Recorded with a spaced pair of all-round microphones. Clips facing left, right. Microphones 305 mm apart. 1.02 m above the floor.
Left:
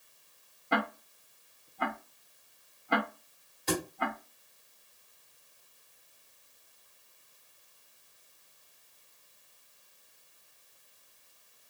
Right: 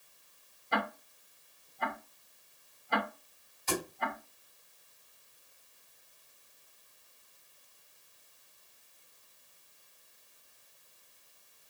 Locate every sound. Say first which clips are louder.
0.7 s ticking: left 3 dB; 70° left (ahead or behind), 0.7 m
3.7 s a thud: left 3 dB; 70° left (ahead or behind), 1.4 m